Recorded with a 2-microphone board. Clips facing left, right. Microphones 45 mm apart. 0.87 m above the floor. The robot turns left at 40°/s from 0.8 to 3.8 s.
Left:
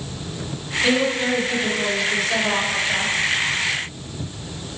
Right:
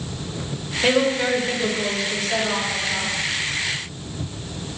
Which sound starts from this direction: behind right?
A woman speaking, at 0.8 s.